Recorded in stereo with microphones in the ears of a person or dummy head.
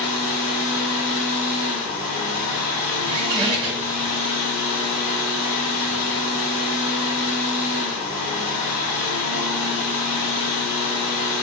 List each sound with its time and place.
0.0 s a fan: 80° left, 1.6 m
3.1 s a squeak: 25° right (ahead or behind), 1.8 m